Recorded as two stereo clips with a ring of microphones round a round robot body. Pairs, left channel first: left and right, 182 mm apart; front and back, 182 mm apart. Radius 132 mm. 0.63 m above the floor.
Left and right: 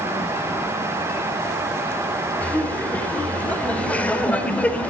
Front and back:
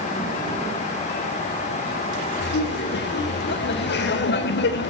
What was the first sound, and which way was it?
Laughter, 10° left.